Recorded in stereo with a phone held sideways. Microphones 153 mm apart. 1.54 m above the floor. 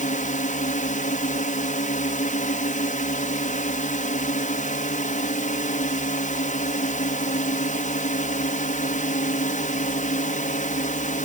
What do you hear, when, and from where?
0.0 s a drone: 55° left (ahead or behind)